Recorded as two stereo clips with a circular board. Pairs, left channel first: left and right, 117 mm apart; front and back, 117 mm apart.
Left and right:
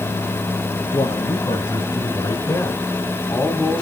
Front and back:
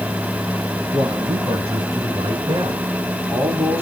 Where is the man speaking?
125° left, 2.5 m; by 3.8 s 160° left, 1.1 m.